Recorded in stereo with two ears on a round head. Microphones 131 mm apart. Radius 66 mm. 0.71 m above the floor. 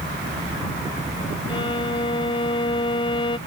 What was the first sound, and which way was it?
A violin, 40° left (ahead or behind).